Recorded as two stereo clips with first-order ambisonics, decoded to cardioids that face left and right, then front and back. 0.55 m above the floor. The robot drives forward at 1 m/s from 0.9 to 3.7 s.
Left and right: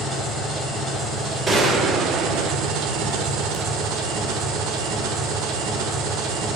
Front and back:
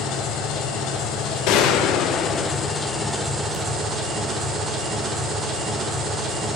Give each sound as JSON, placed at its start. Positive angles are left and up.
{"t": 0.0, "sound": "an engine running", "azimuth_deg": -30, "distance_m": 2.5}
{"t": 1.5, "sound": "a gunshot", "azimuth_deg": -25, "distance_m": 1.2}